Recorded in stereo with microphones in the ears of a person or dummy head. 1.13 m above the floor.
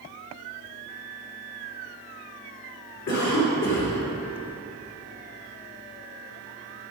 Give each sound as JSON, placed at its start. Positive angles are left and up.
{"t": 3.1, "sound": "a cough", "side_deg": 60, "distance_m": 3.5}